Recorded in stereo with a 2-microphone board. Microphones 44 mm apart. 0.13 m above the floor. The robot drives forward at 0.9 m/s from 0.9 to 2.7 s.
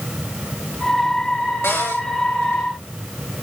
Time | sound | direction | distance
1.6 | a cupboard door | 80° left | 4 m